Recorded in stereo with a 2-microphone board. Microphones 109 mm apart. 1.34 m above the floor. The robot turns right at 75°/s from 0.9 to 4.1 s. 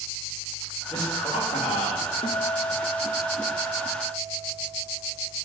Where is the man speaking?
40° left, 3 m; by 2.1 s 130° left, 3 m.